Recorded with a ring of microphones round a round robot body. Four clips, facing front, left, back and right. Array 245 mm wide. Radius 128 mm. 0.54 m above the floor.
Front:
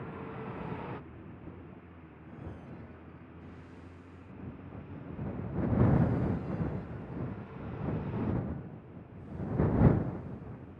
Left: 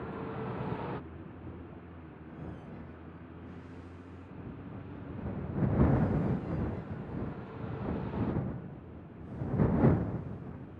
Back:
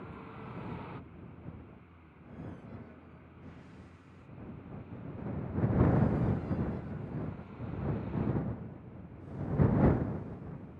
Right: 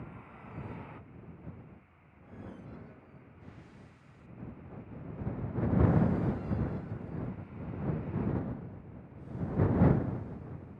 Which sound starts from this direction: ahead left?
A vehicle, at 0.0 s.